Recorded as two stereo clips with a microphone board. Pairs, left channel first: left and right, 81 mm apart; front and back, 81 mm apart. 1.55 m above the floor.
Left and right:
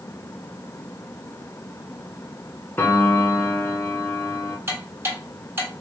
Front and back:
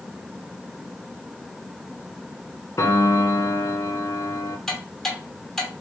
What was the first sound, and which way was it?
A piano, 30° left.